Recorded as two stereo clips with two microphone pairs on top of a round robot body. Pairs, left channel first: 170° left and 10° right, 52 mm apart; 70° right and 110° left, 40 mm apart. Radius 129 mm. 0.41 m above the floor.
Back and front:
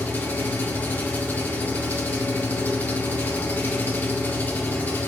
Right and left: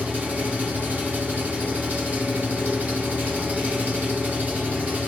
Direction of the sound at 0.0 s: 140° left.